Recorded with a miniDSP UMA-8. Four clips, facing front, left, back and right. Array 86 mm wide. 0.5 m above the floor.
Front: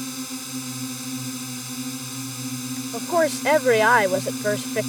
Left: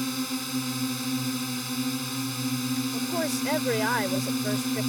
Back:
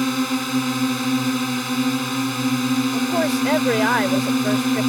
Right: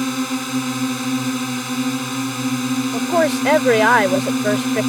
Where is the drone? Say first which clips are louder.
Right 9 dB, back 12 dB; 140° right.